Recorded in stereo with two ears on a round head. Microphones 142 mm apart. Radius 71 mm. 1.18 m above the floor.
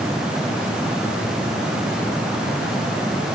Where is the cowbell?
I don't hear a cowbell.